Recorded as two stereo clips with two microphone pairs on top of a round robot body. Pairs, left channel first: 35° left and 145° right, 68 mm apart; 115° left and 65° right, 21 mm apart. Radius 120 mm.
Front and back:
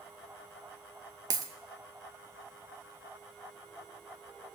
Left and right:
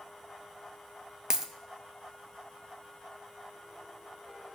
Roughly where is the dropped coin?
Behind right.